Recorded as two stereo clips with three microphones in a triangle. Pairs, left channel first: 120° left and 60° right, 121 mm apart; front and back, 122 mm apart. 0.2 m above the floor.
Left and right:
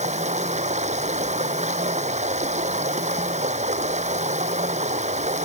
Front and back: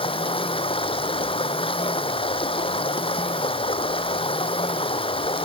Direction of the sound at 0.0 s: 45° right.